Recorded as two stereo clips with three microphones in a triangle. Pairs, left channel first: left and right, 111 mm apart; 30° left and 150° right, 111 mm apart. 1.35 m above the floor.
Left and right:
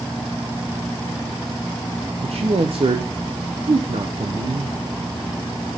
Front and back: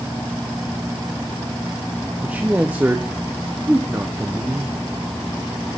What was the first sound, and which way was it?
A man speaking, 75° right.